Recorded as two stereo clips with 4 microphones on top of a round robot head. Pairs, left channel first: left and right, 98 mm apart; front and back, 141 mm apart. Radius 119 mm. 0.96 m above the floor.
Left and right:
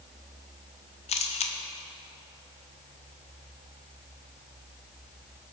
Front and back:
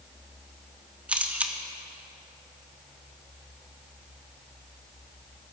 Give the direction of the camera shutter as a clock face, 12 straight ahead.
9 o'clock.